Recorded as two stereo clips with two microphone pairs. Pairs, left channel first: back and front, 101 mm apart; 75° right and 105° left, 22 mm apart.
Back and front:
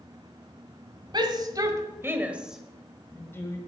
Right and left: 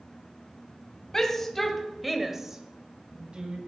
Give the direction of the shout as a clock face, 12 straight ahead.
1 o'clock.